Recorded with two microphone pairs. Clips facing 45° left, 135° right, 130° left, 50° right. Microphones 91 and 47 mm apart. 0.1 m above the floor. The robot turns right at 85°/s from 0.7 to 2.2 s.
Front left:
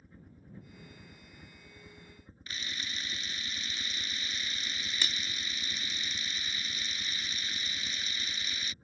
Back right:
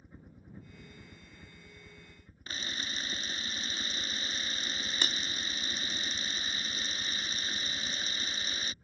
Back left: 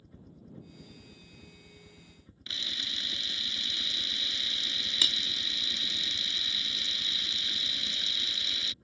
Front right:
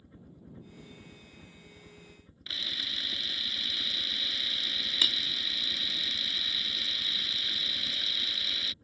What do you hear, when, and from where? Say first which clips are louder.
0.0 s a helicopter: back right 1 dB, even; 95° right; by 8.8 s 30° left
2.5 s a camera shutter: back right 2 dB, even; 130° right